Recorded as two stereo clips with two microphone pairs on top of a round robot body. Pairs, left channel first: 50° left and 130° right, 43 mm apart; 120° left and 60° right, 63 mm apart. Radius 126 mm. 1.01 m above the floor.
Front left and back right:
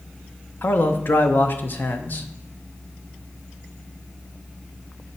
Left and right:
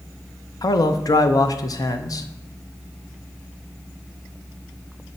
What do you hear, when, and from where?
0.6 s a man speaking: 95° left, 0.7 m